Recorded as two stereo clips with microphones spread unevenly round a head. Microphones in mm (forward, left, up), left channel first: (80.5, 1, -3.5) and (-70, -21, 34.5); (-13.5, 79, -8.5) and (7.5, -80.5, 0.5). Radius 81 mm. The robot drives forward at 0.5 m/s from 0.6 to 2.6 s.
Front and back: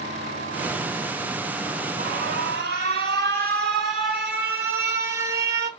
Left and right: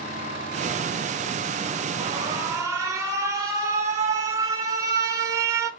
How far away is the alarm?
About 0.7 m.